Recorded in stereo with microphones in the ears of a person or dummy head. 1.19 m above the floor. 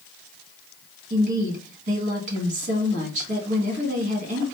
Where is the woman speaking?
50° right (ahead or behind), 1.7 m.